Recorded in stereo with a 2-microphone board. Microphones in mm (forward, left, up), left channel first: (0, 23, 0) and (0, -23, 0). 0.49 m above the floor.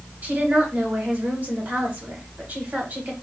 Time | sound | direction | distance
0.2 | a woman speaking | 40° right (ahead or behind) | 1.4 m